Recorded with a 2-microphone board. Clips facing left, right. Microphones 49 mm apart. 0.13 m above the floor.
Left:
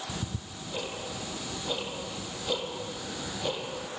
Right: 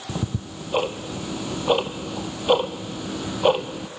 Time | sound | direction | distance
0.1 | ticking | 70° right (ahead or behind) | 1.1 m